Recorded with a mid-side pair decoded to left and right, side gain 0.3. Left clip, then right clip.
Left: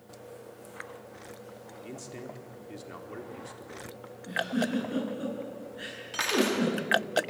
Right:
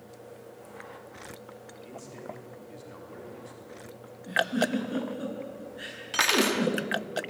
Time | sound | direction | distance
1.8 | a man speaking | 60° left | 4 m
4.3 | a giggle | 10° right | 9.5 m
6.1 | cutlery clinking | 65° right | 2 m